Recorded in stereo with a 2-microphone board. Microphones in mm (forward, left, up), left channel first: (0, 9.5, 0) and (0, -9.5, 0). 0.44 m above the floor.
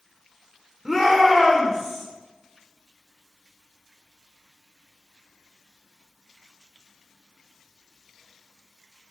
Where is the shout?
20° right (ahead or behind), 1.0 m; by 2.0 s 35° right (ahead or behind), 2 m.